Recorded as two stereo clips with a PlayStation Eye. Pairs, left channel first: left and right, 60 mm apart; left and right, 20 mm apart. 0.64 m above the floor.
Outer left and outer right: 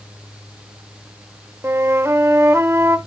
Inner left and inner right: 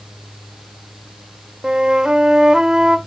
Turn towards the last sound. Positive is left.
turn(degrees=-45)  # may be behind; listen again after turning